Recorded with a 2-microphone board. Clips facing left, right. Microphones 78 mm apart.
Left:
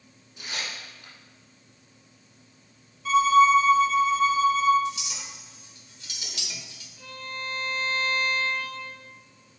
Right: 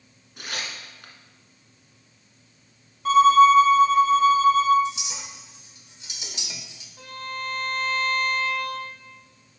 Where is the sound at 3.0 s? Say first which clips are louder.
Right 4 dB; 55° right (ahead or behind), 0.9 m.